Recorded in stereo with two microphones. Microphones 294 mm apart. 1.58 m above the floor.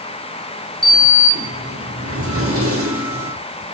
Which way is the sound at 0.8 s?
50° right (ahead or behind).